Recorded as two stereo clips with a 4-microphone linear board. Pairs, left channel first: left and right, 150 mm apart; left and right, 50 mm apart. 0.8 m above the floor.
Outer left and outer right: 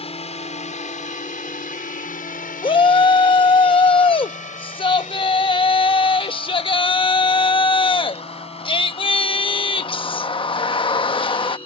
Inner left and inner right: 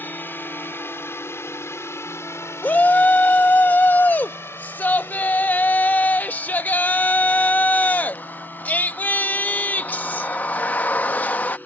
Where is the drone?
45° left (ahead or behind); by 11.7 s 35° left (ahead or behind).